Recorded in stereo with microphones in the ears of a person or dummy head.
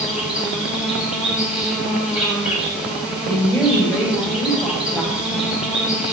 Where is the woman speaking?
10° left (ahead or behind), 6 m.